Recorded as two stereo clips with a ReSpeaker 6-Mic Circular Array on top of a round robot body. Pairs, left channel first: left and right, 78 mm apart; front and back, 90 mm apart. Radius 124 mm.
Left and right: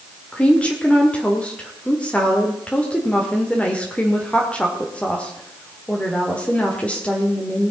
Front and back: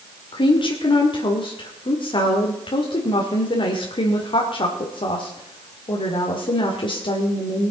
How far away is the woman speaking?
About 1.9 m.